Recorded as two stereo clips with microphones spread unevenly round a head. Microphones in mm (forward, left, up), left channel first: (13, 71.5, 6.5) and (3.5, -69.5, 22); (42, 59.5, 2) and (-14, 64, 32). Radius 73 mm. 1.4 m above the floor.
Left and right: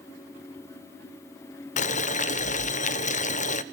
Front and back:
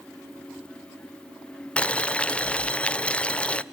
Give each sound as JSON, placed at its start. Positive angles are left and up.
{"t": 1.8, "sound": "boiling", "azimuth_deg": 55, "distance_m": 0.8}